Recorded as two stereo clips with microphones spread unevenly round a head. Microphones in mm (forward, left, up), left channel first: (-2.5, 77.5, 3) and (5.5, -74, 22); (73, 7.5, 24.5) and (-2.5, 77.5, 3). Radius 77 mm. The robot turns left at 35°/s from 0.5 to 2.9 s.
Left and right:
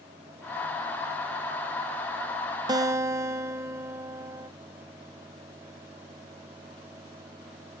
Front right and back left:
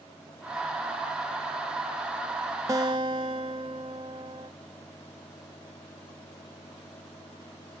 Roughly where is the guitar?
Behind right.